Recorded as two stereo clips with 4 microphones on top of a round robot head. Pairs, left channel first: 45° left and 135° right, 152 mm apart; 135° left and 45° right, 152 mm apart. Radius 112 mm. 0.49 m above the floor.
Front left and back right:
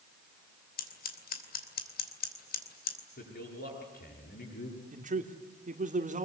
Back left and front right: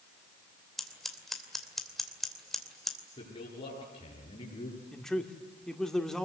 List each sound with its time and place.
0.8 s scissors: 45° left, 2.5 m
3.2 s a man speaking: 75° left, 8.5 m
4.9 s a man speaking: 140° right, 1.7 m